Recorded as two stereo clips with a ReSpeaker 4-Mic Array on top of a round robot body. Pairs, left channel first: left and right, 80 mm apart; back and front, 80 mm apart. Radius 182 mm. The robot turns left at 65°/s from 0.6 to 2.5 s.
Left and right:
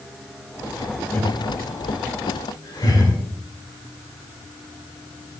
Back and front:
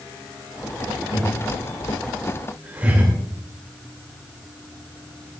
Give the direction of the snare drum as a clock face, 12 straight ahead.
I don't hear a snare drum.